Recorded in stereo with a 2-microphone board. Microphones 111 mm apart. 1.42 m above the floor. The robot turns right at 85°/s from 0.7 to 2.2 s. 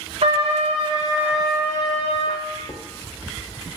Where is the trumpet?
60° right, 0.6 m; by 2.5 s 65° left, 0.6 m.